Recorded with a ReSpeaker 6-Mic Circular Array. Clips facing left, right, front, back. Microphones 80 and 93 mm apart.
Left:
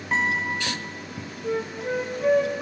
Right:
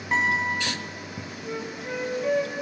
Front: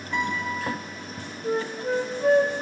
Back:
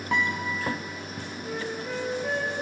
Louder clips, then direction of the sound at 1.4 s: Left 7 dB, front 7 dB; 45° left.